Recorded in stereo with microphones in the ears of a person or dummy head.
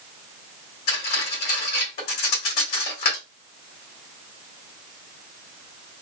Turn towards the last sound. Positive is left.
turn(degrees=45)  # may be behind; listen again after turning